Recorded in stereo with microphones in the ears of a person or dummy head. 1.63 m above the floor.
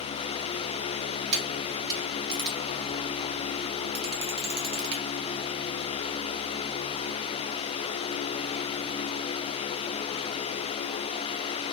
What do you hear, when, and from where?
1.3 s a camera shutter: 60° right (ahead or behind), 0.9 m